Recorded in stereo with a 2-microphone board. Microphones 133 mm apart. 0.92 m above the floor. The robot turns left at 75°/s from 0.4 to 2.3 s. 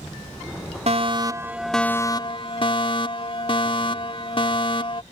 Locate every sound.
0.9 s a fire alarm: 120° right; by 5.0 s 135° left